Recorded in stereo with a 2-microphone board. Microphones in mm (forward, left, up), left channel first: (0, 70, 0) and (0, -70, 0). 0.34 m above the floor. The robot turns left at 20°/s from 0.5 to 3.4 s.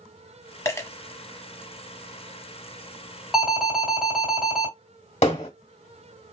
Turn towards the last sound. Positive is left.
turn(degrees=60)  # may be behind; listen again after turning